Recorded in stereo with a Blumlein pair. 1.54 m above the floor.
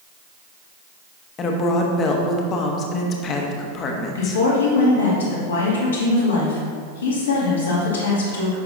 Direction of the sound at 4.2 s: 70° left.